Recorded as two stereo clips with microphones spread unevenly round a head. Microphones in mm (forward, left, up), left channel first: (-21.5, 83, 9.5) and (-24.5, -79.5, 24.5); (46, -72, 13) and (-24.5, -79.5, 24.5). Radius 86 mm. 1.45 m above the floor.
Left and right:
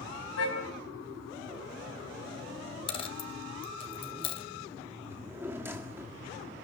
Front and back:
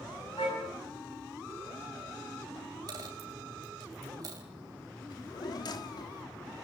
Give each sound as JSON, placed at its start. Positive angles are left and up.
{"t": 0.4, "sound": "a car horn", "azimuth_deg": 65, "distance_m": 5.5}
{"t": 2.9, "sound": "a dropped coin", "azimuth_deg": 145, "distance_m": 2.0}
{"t": 5.1, "sound": "a drawer", "azimuth_deg": -15, "distance_m": 1.7}